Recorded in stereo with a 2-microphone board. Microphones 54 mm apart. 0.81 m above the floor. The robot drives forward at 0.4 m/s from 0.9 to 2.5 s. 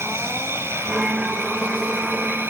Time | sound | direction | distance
0.0 | an insect | 50° right (ahead or behind) | ?